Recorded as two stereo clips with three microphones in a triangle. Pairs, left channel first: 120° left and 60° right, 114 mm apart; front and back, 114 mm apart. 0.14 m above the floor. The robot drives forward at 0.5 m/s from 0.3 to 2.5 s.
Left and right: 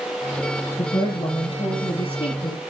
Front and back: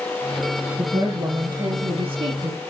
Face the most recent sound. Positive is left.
turn(degrees=155)